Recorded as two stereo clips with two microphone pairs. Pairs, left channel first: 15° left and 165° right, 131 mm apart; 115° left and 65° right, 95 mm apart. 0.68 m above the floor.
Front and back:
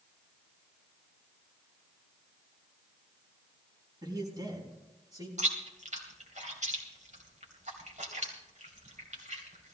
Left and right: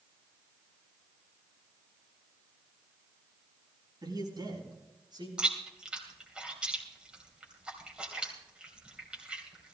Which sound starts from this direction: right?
A man speaking, at 4.0 s.